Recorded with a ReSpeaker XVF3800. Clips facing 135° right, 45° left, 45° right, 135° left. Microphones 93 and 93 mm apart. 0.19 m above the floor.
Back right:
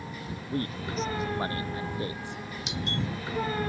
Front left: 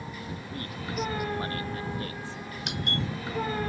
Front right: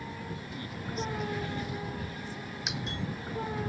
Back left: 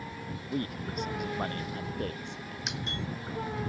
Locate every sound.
0.5 s a man speaking: 170° left; by 2.6 s 150° left
2.7 s a doorbell: 45° left